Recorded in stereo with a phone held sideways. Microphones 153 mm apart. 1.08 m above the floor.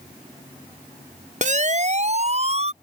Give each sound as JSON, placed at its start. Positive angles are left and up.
{"t": 1.4, "sound": "a siren", "side_deg": -55}